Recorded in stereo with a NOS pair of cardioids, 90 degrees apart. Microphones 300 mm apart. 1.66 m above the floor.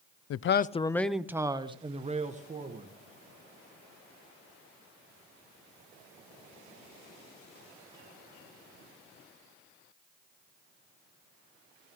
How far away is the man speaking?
About 0.6 m.